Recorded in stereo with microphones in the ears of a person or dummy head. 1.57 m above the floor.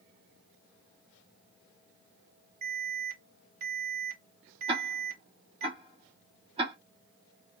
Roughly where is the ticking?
Right.